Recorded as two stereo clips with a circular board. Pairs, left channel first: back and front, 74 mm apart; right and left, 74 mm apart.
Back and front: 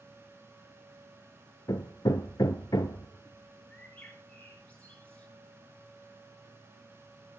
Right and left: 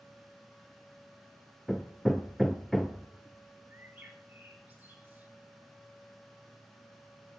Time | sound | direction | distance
1.7 | hammering | 175° right | 0.5 m
3.7 | a bird | 130° left | 1.7 m